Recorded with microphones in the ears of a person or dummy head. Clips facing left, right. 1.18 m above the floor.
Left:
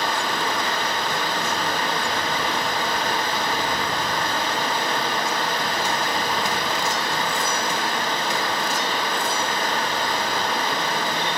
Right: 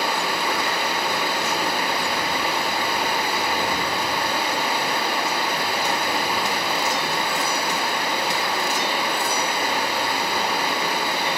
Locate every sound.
0.0 s running water: 5° right (ahead or behind), 1.0 m